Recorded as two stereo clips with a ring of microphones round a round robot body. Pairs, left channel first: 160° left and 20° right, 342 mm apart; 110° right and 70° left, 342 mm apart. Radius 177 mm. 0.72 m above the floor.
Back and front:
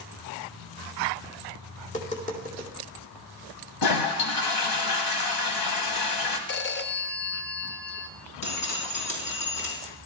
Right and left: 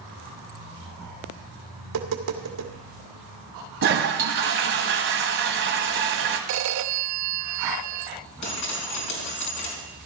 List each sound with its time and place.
1.8 s tapping: 90° left, 2 m
3.8 s a toilet flushing: 125° left, 1.5 m
6.5 s a phone ringing: 105° left, 0.7 m
8.4 s dripping: 155° right, 4.5 m